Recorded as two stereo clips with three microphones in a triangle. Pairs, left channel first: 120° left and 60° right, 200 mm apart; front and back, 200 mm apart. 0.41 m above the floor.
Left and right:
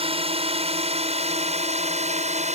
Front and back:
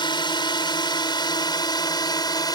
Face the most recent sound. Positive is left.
turn(degrees=-55)